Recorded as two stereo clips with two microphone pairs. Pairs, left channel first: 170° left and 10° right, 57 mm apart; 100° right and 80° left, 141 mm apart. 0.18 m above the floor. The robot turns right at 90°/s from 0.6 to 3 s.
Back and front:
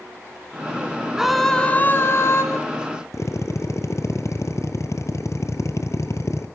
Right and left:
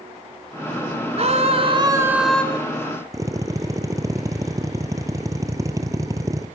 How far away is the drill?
About 2.5 m.